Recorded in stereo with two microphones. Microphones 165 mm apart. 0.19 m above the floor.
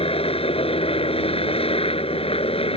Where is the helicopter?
35° left (ahead or behind).